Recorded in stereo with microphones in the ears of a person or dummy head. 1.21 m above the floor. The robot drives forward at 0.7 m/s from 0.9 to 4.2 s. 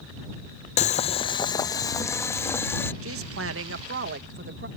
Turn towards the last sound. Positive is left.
turn(degrees=-55)  # may be behind; listen again after turning